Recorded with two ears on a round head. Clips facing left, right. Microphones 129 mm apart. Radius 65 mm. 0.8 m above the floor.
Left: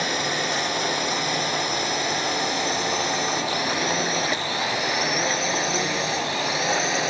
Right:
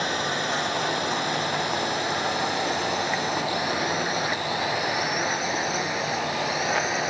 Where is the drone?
15° left (ahead or behind); by 7.1 s 30° left (ahead or behind).